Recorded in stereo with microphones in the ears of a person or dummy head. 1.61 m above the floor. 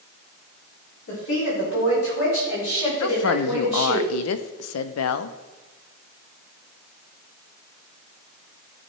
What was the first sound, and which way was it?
A woman speaking, 65° left (ahead or behind).